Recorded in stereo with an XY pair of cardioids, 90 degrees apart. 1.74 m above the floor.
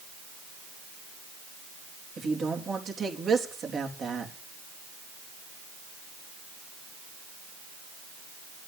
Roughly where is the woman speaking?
Ahead right.